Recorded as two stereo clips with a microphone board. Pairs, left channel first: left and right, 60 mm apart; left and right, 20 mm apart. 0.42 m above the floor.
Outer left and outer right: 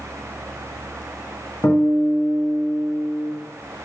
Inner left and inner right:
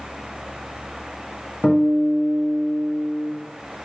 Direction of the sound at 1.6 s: 60° left (ahead or behind).